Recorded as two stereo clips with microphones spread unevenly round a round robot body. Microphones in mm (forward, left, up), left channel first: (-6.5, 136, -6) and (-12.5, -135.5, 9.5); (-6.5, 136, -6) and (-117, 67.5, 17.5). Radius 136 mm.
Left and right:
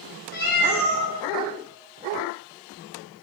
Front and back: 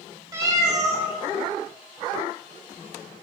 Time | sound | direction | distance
0.3 | a cat meowing | 140° left | 1.3 m